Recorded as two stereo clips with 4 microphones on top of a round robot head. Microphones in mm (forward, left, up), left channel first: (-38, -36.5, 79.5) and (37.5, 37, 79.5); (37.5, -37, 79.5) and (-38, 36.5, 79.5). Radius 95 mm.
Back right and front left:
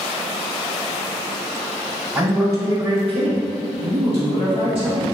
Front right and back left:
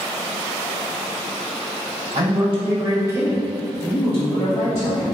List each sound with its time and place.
2.1 s a man speaking: 120° left, 1.3 m; by 5.1 s 5° left, 1.9 m